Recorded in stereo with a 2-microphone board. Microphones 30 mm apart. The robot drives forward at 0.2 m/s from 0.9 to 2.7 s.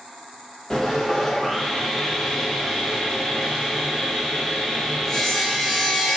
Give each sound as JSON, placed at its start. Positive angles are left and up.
{"t": 0.7, "sound": "sawing", "side_deg": 15, "distance_m": 0.9}